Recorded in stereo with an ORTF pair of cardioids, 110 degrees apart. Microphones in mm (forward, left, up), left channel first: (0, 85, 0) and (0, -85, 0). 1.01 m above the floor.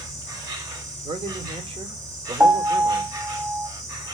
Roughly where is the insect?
Ahead.